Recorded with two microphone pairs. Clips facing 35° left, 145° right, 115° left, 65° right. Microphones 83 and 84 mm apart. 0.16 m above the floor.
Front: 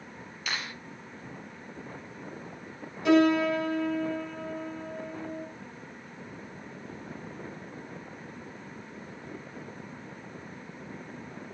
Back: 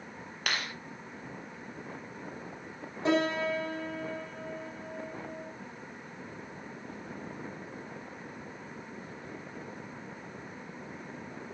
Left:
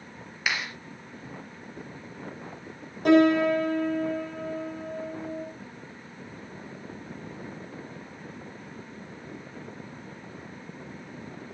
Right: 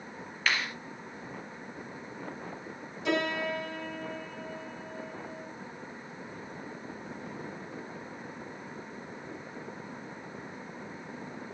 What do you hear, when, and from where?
0.5 s a clap: 165° right, 3 m
3.0 s a piano: 155° left, 10 m